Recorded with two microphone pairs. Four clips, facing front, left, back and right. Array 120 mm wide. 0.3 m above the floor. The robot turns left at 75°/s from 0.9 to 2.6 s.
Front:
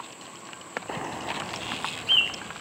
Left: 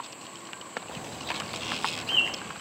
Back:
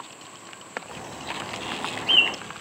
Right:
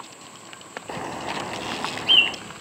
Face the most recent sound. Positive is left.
turn(degrees=-175)